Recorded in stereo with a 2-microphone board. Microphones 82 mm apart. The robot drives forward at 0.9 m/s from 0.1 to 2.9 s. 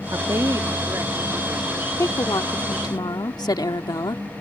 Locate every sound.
0.1 s a woman speaking: 45° right (ahead or behind); by 1.9 s 20° right (ahead or behind)
2.0 s a woman speaking: 45° left (ahead or behind); by 4.2 s 60° left (ahead or behind)